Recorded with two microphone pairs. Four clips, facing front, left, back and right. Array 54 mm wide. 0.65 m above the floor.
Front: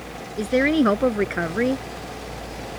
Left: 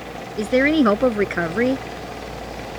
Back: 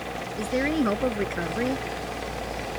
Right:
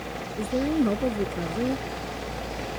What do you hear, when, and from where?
0.4 s a woman speaking: 70° left